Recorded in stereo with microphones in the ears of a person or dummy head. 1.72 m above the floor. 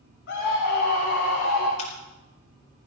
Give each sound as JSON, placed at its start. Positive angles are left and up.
{"t": 0.3, "sound": "a scream", "side_deg": 65, "distance_m": 3.5}
{"t": 1.8, "sound": "a camera shutter", "side_deg": 40, "distance_m": 4.5}